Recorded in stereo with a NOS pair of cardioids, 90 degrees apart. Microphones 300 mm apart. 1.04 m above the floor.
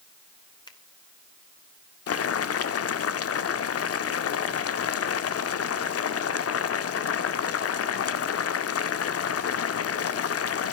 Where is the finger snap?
15° left, 2.5 m.